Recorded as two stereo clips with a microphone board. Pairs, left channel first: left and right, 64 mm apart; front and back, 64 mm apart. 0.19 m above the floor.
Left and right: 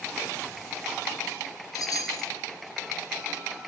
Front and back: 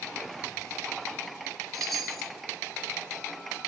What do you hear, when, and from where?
1.7 s a chime: 90° left, 3.5 m